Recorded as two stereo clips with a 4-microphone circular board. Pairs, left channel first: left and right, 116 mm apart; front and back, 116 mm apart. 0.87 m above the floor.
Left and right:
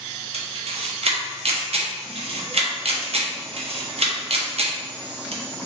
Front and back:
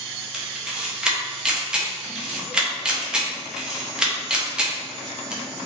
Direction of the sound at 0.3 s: 100° right.